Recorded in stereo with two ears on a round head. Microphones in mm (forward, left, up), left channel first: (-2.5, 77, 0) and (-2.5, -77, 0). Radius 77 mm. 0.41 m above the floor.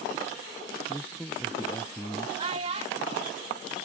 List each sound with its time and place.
0.9 s a man speaking: 10° left (ahead or behind); by 2.3 s 15° left (ahead or behind)
2.4 s a child speaking: 35° right (ahead or behind)